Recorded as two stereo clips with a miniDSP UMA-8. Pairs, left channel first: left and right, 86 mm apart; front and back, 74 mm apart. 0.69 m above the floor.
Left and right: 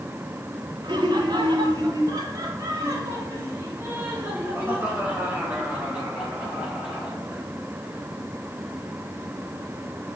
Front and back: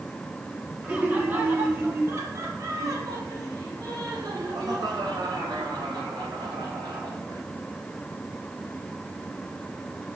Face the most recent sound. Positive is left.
turn(degrees=-170)